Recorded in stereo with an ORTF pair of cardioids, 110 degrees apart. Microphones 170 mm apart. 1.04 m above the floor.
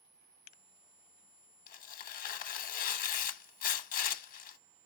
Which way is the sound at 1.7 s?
55° left.